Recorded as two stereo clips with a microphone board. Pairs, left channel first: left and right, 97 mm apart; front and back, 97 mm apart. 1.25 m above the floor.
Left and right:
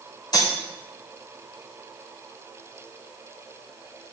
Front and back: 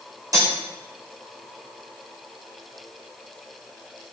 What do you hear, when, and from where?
0.3 s cutlery clinking: 130° left, 3.5 m